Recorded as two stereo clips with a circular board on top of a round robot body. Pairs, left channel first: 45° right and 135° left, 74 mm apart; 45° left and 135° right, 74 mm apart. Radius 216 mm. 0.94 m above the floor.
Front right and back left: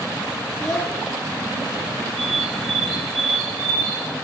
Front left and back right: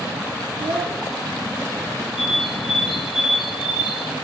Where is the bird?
130° left, 4 m.